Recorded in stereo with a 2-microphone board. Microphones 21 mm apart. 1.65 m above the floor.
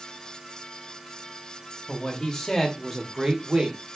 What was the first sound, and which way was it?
A man speaking, 40° left (ahead or behind).